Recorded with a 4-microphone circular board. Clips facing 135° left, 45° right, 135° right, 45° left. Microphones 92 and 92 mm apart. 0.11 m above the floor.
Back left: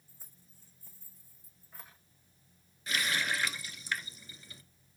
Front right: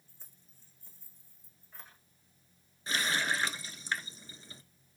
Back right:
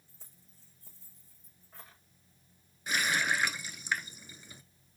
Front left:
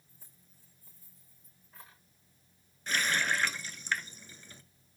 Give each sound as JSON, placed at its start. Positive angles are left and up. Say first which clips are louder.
{"t": 0.1, "sound": "keys jangling", "louder": "back left 3 dB, back right 1 dB", "azimuth_deg": -145, "distance_m": 5.5}
{"t": 2.9, "sound": "a running tap", "louder": "front right 1 dB, even", "azimuth_deg": -65, "distance_m": 0.8}